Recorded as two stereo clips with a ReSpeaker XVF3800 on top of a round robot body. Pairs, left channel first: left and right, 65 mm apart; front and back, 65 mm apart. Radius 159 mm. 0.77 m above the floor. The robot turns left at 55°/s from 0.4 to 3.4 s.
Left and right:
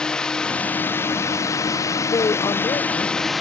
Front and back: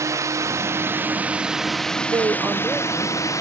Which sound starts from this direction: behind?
A drone, at 0.0 s.